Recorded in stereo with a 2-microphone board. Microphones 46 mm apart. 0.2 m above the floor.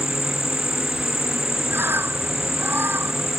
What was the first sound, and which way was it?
An insect, 75° left (ahead or behind).